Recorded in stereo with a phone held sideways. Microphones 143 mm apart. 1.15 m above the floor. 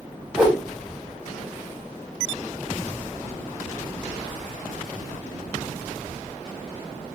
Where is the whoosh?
5° left (ahead or behind), 1.1 m.